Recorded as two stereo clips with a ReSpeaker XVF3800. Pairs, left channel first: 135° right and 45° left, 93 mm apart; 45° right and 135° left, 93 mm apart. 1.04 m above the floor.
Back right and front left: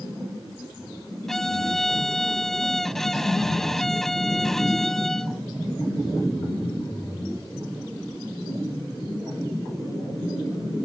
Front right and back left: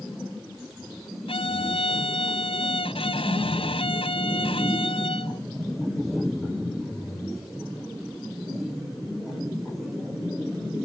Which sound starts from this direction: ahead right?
A violin, at 1.3 s.